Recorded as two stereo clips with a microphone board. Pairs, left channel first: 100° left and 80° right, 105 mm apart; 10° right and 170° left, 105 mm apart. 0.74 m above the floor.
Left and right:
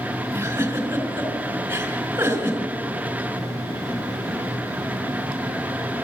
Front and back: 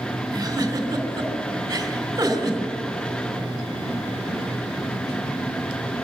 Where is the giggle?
135° right, 3.5 m.